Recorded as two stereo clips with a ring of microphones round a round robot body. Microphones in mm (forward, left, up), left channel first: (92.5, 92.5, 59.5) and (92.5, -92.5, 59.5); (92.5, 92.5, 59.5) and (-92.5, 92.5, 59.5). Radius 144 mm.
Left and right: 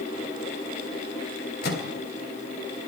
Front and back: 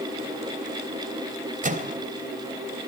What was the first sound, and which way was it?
A microwave, 135° left.